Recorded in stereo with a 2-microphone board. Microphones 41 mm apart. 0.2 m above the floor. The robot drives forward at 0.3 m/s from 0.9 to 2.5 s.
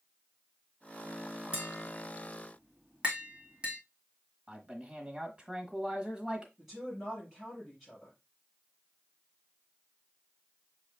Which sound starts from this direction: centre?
A woman speaking, at 6.6 s.